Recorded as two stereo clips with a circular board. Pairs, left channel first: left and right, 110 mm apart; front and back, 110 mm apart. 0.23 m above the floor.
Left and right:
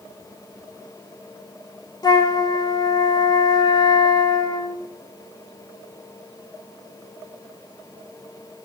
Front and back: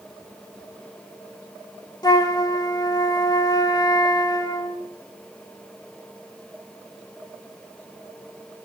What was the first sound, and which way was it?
A flute, 45° left.